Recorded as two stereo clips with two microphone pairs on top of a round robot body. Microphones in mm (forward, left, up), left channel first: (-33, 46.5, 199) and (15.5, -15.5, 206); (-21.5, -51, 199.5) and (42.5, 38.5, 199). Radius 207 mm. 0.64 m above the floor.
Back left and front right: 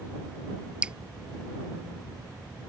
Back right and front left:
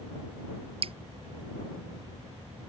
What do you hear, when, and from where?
0.8 s dripping: 25° left